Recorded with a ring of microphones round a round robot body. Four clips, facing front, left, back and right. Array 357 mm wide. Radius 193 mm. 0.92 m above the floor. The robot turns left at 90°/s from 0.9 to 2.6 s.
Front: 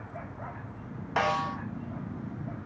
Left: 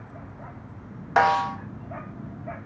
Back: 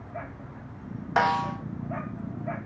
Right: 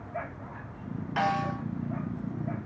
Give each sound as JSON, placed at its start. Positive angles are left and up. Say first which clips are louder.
{"t": 1.2, "sound": "a snare drum", "louder": "left 8 dB, back 4 dB", "azimuth_deg": 110, "distance_m": 1.4}